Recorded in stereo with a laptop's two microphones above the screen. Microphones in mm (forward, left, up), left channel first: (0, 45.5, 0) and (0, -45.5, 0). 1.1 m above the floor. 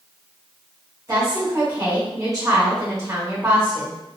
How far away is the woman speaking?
About 1.1 m.